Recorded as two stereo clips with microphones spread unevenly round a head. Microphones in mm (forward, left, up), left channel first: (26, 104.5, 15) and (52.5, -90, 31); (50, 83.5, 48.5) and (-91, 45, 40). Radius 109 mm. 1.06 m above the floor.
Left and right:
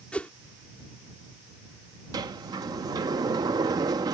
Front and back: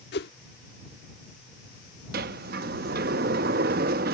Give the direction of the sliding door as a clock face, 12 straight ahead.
5 o'clock.